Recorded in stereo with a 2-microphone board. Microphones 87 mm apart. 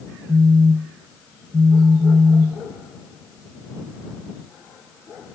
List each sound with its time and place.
0.3 s a phone buzzing: 80° right